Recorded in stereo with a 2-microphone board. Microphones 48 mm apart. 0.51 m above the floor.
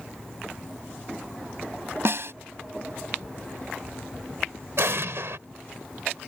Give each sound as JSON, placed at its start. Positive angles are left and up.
{"t": 2.0, "sound": "a snare drum", "side_deg": -60}
{"t": 4.8, "sound": "an explosion", "side_deg": -65}